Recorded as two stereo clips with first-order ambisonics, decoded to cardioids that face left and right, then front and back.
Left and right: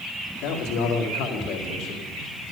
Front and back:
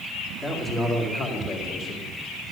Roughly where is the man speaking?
Left.